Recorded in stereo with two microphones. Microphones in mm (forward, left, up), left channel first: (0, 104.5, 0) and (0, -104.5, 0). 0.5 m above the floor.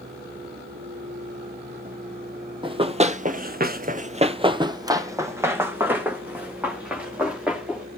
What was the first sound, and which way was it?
Running footsteps, 25° right (ahead or behind).